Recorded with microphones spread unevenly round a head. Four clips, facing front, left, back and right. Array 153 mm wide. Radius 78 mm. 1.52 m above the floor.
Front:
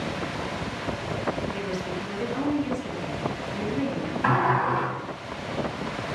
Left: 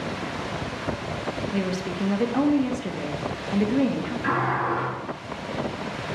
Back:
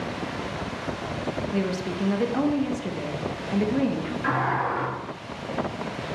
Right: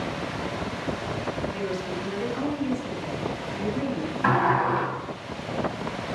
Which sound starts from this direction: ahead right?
A sliding door, at 4.2 s.